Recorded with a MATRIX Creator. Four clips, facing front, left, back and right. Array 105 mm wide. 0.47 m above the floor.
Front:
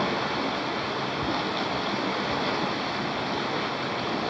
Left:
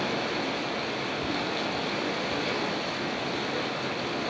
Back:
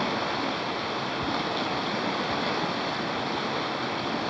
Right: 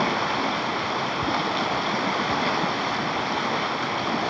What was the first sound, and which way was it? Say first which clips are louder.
Running water: right 6 dB, front 1 dB; 90° right.